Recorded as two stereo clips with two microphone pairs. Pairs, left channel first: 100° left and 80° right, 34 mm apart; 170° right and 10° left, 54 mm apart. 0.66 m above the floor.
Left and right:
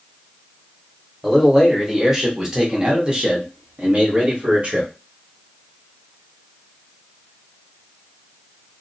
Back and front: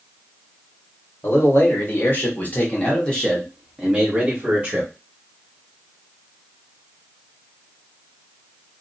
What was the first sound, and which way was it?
A man speaking, 170° right.